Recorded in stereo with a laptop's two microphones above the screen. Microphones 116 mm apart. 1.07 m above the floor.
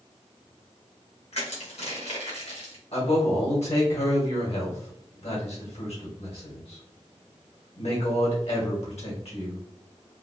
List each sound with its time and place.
1.3 s crushing: 60° left (ahead or behind), 1.3 m
2.9 s a man speaking: 65° left (ahead or behind), 1.8 m